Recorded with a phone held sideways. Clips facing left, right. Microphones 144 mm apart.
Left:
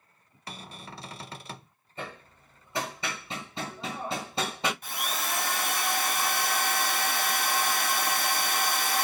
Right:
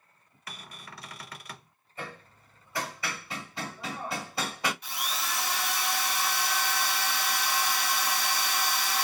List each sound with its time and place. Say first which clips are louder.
0.5 s a cupboard door: left 4 dB; 30° left (ahead or behind), 0.5 m
2.0 s hammering: left 1 dB; 25° left (ahead or behind), 1.7 m
4.8 s a drill: left 2 dB; 50° left (ahead or behind), 0.8 m